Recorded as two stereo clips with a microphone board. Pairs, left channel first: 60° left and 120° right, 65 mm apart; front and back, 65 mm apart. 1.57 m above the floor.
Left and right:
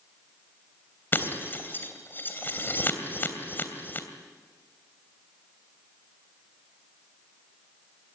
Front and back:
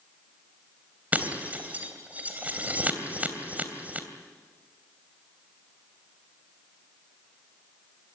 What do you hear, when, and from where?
1.1 s breaking glass: 115° left, 3 m